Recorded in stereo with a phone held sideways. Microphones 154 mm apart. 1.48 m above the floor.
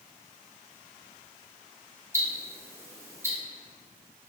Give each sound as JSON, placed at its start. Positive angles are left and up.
{"t": 2.1, "sound": "ticking", "side_deg": -15, "distance_m": 0.6}